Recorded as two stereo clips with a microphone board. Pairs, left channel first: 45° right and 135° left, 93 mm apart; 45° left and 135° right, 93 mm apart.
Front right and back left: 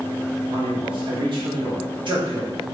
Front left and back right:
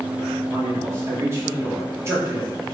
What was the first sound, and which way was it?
A man speaking, 165° left.